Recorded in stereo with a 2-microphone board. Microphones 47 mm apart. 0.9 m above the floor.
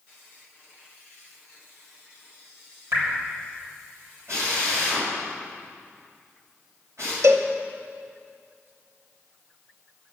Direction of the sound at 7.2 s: 70° right (ahead or behind).